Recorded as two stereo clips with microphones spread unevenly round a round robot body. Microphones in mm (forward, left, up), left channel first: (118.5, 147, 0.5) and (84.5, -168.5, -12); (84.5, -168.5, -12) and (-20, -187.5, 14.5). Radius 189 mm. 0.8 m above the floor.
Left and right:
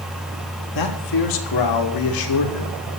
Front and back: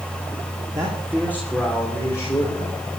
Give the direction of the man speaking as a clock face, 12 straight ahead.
8 o'clock.